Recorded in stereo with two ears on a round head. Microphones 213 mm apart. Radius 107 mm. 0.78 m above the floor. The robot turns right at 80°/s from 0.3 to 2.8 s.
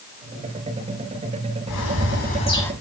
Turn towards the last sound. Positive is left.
turn(degrees=180)